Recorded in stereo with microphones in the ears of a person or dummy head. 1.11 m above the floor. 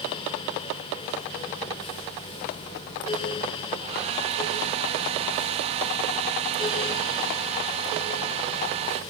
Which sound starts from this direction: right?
A hair dryer, at 3.8 s.